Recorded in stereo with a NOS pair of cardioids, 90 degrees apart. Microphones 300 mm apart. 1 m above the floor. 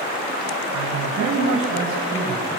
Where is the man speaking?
60° right, 5 m; by 2.6 s 40° right, 7 m.